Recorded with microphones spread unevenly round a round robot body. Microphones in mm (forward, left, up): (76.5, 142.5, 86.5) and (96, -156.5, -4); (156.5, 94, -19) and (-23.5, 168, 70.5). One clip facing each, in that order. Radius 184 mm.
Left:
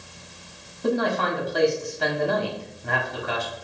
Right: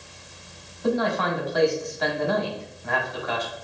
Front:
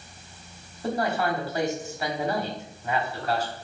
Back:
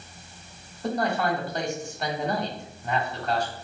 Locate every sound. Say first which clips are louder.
0.8 s a man speaking: even, even; 35° left, 1.4 m